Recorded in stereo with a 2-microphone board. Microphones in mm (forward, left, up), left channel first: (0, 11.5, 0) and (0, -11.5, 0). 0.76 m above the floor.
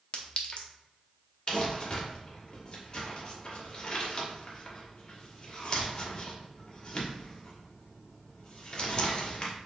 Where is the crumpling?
40° left (ahead or behind), 1.1 m.